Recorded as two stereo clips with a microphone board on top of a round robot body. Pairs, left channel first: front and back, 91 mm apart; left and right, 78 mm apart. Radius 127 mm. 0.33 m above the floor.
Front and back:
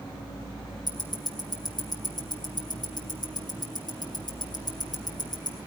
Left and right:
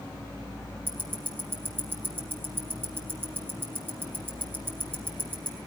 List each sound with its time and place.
0.9 s ticking: 30° right, 3 m